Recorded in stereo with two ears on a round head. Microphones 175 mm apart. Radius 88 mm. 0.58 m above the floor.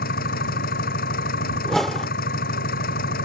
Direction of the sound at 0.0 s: 45° left (ahead or behind).